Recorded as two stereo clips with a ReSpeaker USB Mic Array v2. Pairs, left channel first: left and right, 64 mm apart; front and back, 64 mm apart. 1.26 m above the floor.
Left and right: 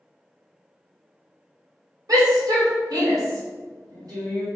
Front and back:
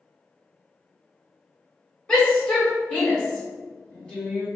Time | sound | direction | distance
2.1 | a shout | 75° right | 1.9 m